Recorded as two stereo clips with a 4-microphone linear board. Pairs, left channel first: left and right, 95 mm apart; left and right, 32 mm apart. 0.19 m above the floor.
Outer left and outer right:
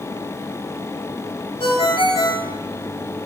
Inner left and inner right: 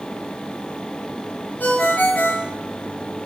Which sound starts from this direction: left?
A ringtone, at 1.6 s.